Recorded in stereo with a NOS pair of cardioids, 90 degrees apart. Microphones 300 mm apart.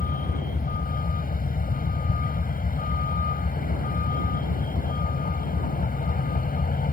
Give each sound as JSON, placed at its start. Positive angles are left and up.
{"t": 0.0, "sound": "a vehicle", "azimuth_deg": 30}